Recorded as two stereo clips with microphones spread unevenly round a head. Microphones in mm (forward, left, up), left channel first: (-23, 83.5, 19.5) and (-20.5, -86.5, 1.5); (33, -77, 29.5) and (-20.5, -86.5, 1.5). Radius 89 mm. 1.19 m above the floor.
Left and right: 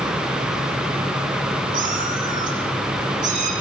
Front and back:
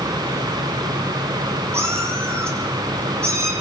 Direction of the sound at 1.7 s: 130° right.